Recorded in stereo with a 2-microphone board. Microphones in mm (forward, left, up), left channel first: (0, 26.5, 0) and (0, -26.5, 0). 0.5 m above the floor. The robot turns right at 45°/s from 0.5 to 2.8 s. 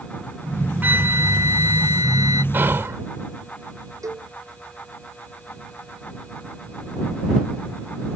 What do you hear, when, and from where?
0.8 s a flute: 150° right; by 2.4 s 75° right
2.5 s whispering: 40° right (ahead or behind); by 3.0 s 50° right (ahead or behind)
4.0 s a cowbell: 75° right (ahead or behind)